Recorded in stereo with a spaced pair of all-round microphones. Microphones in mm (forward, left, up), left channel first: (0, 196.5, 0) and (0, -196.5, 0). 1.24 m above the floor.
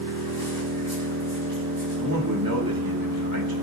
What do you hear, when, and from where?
0.0 s an engine running: 65° right (ahead or behind), 4 m
2.0 s a man speaking: 60° right (ahead or behind), 2.5 m